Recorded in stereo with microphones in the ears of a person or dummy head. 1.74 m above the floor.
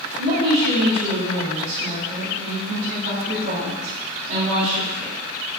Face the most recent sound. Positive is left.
turn(degrees=-65)  # may be behind; listen again after turning